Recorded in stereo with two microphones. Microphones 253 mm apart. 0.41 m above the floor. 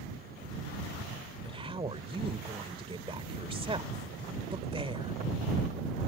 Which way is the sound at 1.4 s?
20° right (ahead or behind).